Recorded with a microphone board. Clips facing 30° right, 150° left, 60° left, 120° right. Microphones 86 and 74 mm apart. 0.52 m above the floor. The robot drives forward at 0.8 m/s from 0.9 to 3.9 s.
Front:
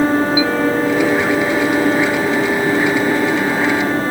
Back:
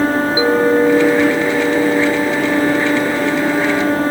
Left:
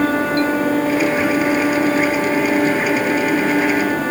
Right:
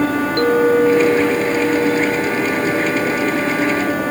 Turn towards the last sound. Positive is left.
turn(degrees=-160)